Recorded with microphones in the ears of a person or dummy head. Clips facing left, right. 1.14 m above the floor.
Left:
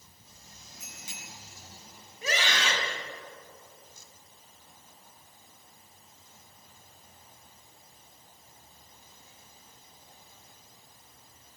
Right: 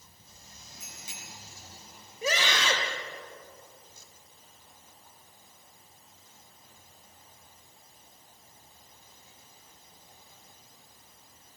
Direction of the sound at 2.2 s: 90° right.